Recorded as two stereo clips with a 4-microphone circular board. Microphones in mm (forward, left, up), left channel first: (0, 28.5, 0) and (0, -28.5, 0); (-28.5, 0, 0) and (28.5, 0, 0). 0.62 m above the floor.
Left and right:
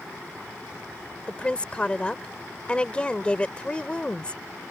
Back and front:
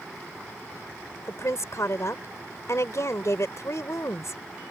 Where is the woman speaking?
160° left.